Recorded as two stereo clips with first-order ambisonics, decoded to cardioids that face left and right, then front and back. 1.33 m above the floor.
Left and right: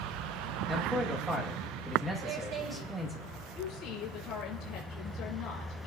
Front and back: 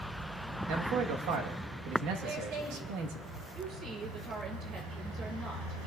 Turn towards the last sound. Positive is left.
turn(degrees=130)